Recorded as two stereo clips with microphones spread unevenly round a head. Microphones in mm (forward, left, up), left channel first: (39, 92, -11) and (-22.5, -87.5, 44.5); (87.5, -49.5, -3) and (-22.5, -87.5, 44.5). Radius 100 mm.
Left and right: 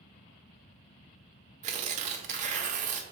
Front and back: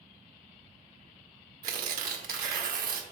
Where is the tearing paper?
170° right, 1.2 m.